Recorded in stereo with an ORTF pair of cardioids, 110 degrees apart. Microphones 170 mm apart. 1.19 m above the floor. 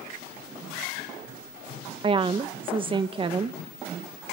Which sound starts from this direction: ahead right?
A woman speaking, at 2.0 s.